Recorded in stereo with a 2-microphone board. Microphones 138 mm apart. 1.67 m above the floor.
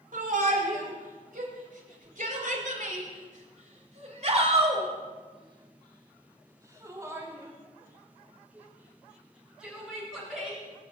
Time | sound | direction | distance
0.1 | a shout | 80° right | 6 m